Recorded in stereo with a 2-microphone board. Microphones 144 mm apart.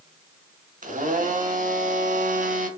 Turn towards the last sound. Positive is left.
turn(degrees=-65)  # may be behind; listen again after turning